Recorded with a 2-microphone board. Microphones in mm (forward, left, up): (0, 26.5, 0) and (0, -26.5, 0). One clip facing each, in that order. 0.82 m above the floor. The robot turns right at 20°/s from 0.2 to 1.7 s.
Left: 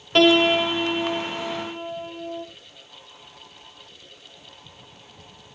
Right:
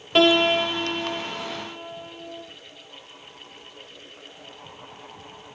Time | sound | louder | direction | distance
0.1 | a piano | left 1 dB | 5° right | 1.9 m